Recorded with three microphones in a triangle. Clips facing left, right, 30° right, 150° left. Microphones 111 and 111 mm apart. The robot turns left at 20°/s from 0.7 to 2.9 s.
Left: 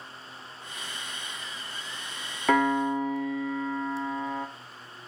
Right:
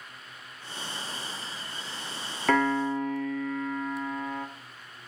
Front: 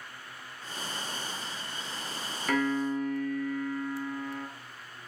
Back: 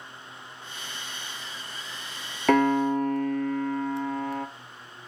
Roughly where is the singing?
I don't hear singing.